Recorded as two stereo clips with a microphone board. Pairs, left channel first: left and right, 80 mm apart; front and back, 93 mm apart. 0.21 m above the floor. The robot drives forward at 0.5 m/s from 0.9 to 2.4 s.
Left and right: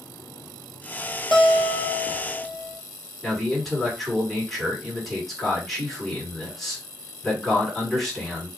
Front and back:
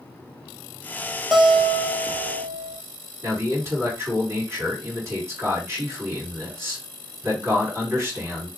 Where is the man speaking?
Straight behind, 1.8 m.